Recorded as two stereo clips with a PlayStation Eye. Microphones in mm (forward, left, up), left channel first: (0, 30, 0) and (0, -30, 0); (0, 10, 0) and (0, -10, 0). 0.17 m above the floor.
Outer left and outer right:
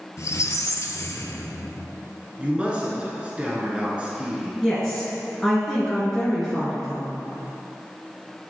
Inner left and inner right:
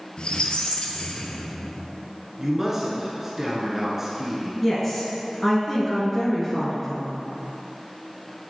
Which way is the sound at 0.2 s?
60° left (ahead or behind).